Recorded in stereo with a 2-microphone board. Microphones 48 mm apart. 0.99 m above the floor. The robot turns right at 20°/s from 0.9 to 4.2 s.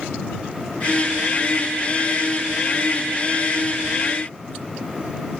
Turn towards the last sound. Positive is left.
No sound to turn to.